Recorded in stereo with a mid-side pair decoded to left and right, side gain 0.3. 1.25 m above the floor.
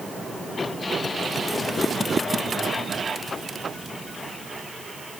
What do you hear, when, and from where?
Only background noise.